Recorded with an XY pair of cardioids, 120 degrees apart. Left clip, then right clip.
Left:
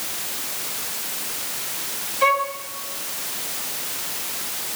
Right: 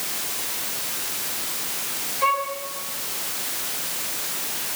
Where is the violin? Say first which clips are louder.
Left 3 dB; 45° left, 4.5 m.